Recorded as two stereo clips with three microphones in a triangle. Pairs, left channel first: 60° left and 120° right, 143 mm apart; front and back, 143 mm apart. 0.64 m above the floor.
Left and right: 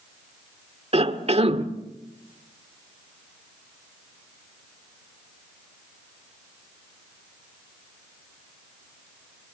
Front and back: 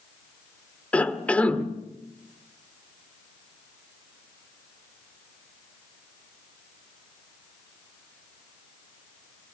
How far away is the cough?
About 1.5 m.